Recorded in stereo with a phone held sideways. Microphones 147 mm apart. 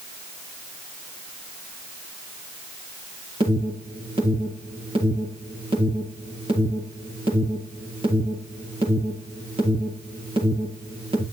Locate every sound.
3.4 s an alarm: 40° right (ahead or behind), 4.5 m